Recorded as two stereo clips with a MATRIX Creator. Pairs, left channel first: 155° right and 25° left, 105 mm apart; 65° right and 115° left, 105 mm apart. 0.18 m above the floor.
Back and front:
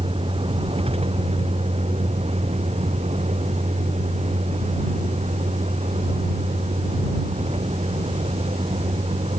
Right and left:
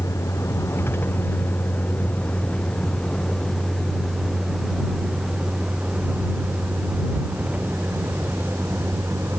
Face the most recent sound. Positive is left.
turn(degrees=45)